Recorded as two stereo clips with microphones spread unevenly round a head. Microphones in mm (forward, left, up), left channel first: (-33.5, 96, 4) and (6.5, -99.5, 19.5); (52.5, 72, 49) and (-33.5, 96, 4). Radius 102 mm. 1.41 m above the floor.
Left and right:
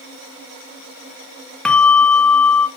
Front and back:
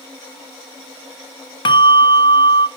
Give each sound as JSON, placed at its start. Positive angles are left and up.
{"t": 1.6, "sound": "a bell", "azimuth_deg": 15, "distance_m": 0.7}